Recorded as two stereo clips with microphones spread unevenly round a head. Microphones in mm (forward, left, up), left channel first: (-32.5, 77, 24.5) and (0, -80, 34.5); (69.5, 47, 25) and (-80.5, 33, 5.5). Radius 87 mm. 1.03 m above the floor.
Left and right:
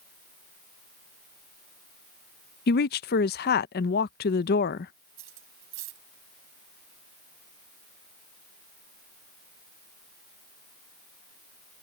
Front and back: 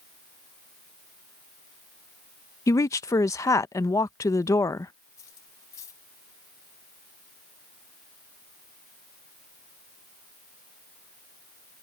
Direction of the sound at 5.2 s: 70° right.